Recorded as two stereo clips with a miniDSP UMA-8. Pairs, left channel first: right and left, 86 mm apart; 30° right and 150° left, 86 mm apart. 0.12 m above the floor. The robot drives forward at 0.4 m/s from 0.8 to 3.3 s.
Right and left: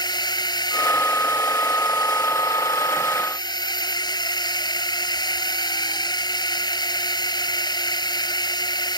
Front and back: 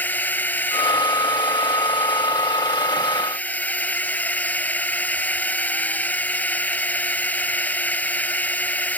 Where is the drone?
95° right.